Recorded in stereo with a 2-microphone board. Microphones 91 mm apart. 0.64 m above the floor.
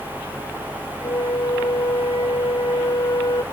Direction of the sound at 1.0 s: 65° left (ahead or behind).